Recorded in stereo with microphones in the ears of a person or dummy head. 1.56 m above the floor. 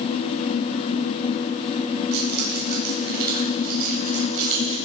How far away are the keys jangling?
About 7.5 m.